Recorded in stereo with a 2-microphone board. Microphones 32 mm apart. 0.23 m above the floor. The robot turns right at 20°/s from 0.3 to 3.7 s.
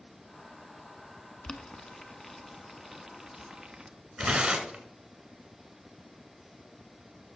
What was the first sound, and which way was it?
Boiling, 30° left (ahead or behind).